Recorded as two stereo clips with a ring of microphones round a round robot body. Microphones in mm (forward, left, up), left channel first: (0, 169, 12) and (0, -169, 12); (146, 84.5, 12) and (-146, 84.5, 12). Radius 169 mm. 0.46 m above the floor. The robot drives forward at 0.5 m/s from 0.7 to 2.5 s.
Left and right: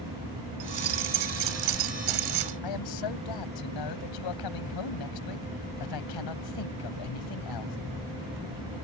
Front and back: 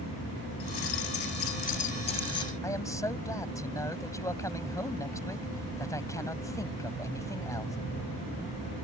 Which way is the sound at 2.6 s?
80° left.